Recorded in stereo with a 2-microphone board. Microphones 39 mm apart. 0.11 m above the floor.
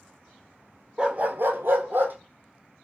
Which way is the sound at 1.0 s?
20° right (ahead or behind).